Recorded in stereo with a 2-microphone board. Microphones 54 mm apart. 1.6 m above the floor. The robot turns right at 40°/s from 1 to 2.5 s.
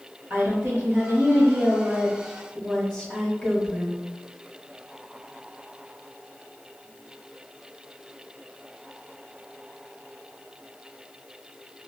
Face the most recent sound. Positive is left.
turn(degrees=10)